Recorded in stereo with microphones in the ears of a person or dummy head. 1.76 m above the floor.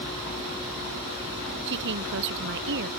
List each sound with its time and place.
1.7 s a woman speaking: 65° right (ahead or behind)